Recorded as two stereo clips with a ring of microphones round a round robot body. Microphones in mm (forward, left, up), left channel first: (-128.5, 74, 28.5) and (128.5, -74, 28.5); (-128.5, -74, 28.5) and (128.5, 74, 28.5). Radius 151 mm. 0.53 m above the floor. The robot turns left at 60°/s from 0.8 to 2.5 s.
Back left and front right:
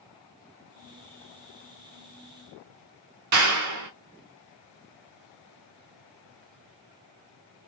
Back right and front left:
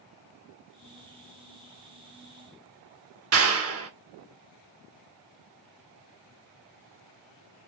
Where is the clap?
10° right, 1.3 m.